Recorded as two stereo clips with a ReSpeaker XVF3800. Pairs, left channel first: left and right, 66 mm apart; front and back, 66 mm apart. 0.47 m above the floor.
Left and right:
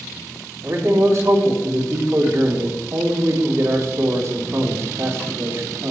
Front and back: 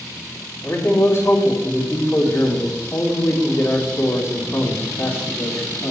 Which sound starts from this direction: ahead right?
A man speaking, at 0.6 s.